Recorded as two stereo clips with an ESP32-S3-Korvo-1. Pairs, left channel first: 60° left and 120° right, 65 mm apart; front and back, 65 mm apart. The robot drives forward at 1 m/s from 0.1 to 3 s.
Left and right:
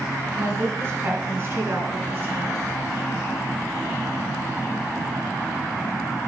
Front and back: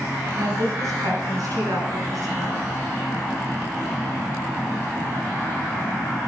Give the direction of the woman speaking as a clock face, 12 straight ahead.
5 o'clock.